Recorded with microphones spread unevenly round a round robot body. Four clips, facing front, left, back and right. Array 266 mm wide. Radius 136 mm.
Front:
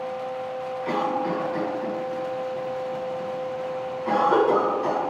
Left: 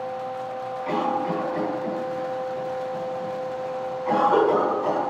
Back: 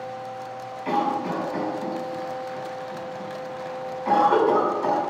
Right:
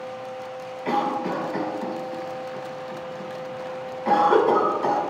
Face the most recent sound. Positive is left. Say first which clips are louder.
# right 1 dB, back 2 dB
turn(degrees=-110)